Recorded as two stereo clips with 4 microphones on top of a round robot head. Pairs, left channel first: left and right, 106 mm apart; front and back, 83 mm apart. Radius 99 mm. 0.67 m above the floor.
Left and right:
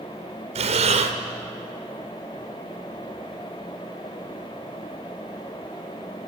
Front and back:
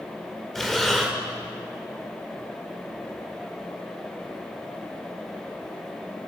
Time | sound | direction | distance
0.6 | breathing | 85° right | 1.7 m